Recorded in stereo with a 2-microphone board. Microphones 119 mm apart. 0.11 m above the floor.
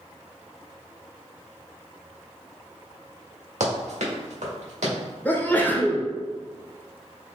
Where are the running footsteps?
75° right (ahead or behind), 2.0 m.